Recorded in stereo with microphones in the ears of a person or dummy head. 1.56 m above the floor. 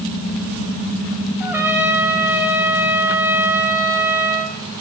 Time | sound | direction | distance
1.4 | a trumpet | 10° right (ahead or behind) | 0.5 m